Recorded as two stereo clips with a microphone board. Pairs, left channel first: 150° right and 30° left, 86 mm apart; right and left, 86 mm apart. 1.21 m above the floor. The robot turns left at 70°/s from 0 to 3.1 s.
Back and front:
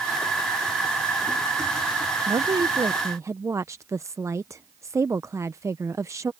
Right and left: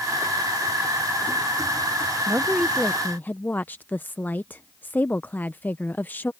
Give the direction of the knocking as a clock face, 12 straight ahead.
No knocking in this recording.